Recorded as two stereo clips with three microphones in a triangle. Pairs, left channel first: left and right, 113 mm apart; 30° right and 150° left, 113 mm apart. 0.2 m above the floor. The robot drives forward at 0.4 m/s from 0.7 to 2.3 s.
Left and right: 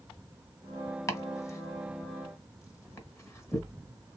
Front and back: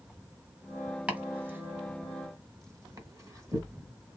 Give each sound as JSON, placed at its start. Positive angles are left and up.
{"t": 1.1, "sound": "chopping", "azimuth_deg": 85, "distance_m": 1.5}